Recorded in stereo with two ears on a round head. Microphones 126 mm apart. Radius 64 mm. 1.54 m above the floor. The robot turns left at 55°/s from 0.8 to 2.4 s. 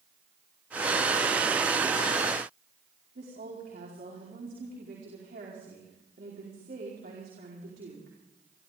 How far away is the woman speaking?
About 5 m.